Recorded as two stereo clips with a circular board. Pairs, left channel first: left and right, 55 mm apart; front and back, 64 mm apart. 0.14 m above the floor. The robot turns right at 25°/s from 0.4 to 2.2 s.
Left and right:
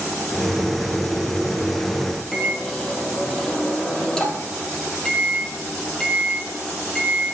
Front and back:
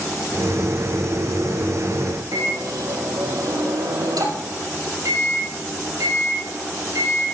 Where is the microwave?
170° left, 3.5 m.